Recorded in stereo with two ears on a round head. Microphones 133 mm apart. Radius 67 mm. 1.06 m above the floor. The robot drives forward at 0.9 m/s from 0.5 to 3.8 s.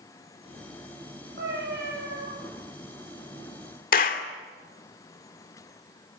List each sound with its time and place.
1.4 s a cat meowing: 75° right (ahead or behind), 8.5 m; by 2.3 s 70° right (ahead or behind), 9 m
3.9 s a clap: 60° left (ahead or behind), 2 m